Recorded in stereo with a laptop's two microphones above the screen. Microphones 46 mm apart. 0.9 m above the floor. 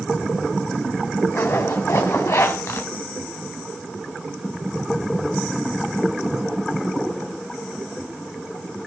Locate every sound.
1.3 s a zipper: 75° left (ahead or behind), 3.5 m